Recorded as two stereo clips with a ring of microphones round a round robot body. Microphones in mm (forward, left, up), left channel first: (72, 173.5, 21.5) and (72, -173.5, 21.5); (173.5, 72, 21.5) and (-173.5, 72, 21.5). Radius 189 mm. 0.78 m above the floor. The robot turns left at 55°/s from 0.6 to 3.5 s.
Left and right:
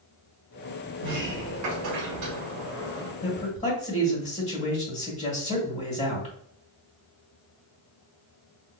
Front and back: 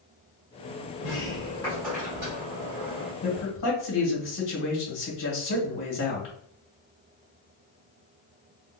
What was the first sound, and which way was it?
A sliding door, 45° right.